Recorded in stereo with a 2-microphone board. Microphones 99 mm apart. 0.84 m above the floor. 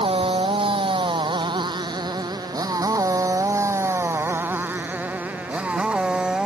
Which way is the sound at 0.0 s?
65° right (ahead or behind).